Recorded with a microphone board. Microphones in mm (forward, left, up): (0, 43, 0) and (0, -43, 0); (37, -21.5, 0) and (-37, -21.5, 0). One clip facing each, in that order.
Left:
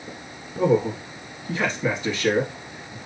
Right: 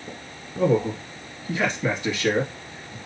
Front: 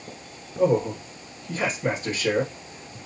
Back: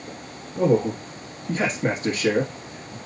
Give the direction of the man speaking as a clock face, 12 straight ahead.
6 o'clock.